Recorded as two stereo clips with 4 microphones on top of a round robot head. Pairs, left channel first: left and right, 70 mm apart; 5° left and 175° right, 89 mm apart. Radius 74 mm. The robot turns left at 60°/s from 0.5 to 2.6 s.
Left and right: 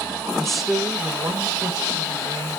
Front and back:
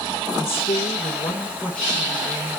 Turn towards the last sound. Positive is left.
turn(degrees=-120)